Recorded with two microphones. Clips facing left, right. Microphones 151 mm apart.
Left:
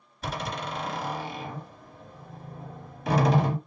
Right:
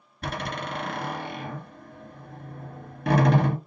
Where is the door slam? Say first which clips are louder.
Right 1 dB; 55° right (ahead or behind), 2 m.